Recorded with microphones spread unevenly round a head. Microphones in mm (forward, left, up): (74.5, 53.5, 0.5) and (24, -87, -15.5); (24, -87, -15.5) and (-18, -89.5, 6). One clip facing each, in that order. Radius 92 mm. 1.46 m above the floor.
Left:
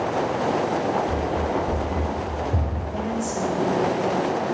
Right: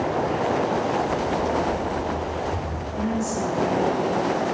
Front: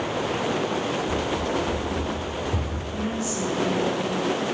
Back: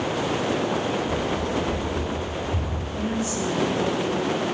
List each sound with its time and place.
1.1 s running footsteps: 40° left, 3.5 m; by 2.8 s 25° left, 4.5 m
2.9 s a woman speaking: 15° left, 7.5 m